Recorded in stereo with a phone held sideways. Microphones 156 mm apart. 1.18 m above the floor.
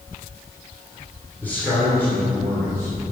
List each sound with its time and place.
1.4 s a man speaking: 10° left (ahead or behind), 3 m; by 3.1 s 15° left (ahead or behind), 5 m